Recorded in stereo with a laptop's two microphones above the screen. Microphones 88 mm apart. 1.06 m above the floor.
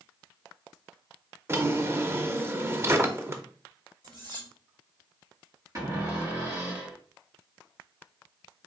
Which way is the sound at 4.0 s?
55° right (ahead or behind).